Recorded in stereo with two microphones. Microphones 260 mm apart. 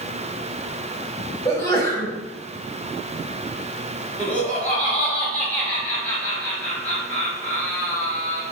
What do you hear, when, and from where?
1.4 s a sneeze: 10° left (ahead or behind), 1.1 m
4.2 s laughter: 5° left (ahead or behind), 1.2 m